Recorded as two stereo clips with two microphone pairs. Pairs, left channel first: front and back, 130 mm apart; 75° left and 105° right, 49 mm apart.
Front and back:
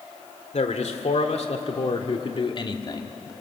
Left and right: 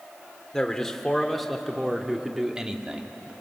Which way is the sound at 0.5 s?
5° right.